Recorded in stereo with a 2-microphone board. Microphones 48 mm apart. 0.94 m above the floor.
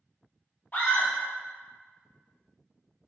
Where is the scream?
35° left (ahead or behind), 0.8 m.